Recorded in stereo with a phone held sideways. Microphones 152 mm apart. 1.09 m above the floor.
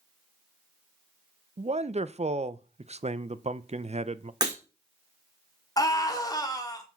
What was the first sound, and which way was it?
A man speaking, 45° right (ahead or behind).